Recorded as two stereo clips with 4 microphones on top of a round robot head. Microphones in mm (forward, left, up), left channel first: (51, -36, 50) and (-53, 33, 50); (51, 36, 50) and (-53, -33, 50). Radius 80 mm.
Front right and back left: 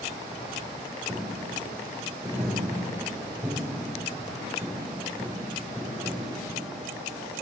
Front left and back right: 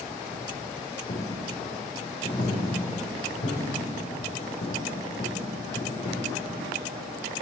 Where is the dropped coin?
75° left, 4.5 m.